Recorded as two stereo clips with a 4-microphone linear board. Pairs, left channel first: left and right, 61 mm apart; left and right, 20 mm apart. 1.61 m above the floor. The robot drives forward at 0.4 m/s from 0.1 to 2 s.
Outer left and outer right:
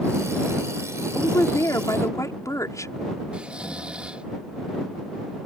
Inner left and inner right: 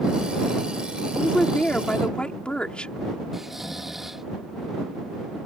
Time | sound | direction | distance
1.1 | a woman speaking | 60° left (ahead or behind) | ?
3.3 | snoring | 20° right (ahead or behind) | ?